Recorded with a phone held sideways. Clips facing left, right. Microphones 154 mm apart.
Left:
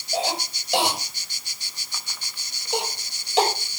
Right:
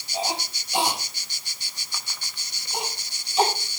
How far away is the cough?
About 6.5 m.